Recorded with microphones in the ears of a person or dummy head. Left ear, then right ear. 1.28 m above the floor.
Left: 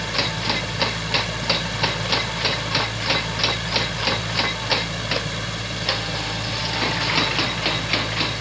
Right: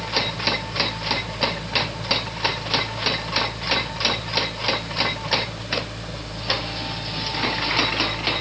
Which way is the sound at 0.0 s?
65° left (ahead or behind).